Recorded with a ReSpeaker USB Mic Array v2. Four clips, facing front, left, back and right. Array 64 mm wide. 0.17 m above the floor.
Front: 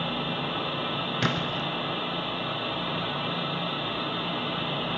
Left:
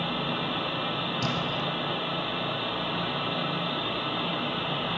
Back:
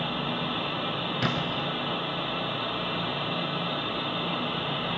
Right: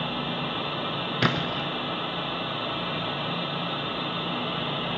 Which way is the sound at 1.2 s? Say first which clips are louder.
Right 6 dB, even; 80° right.